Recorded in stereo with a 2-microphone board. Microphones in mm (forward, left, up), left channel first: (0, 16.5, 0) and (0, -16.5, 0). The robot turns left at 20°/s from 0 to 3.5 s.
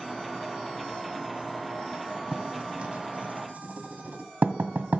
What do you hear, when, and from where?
2.3 s writing: 35° right (ahead or behind), 1.5 m; by 5.0 s 55° right (ahead or behind), 1.5 m